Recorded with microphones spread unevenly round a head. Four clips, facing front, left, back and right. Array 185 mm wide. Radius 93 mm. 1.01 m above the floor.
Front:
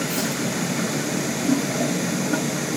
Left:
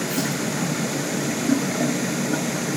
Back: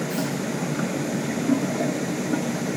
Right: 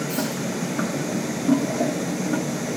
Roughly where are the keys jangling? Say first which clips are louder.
Left 1 dB, front 1 dB; ahead.